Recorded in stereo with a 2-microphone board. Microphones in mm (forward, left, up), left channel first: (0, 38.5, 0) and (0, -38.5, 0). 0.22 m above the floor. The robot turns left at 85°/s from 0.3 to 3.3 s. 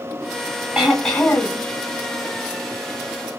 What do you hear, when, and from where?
0.8 s throat clearing: 165° right, 1.1 m; by 1.6 s 120° left, 1.1 m